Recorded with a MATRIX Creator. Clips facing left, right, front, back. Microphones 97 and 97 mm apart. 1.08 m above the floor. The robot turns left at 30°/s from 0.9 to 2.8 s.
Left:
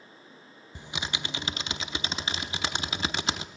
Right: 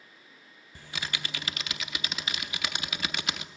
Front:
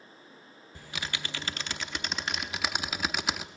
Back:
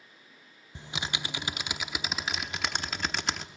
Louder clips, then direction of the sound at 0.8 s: Left 2 dB, back 2 dB; 135° left.